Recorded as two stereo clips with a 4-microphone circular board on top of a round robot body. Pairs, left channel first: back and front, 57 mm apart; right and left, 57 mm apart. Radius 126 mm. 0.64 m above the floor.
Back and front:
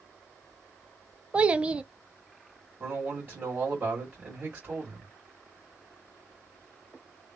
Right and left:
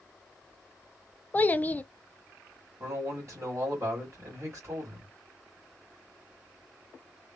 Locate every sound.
1.3 s a child speaking: 55° right, 0.6 m
2.8 s a man speaking: 55° left, 2.0 m